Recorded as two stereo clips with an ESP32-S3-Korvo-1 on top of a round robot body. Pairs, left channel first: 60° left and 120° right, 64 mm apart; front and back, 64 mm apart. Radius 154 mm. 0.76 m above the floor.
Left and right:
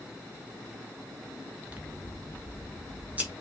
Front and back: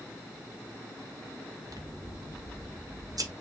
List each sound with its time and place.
1.7 s scissors: 175° left, 1.9 m